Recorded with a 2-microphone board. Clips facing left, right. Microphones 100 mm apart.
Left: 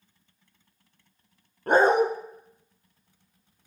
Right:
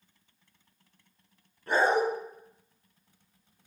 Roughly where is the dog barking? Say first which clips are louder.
Left 5 dB; left.